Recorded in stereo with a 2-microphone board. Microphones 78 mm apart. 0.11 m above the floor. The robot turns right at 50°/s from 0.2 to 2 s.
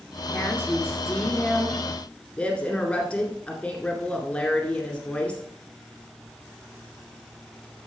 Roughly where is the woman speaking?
Left.